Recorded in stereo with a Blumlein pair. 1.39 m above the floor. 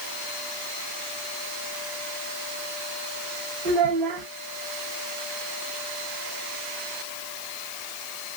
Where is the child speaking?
30° right, 0.9 m.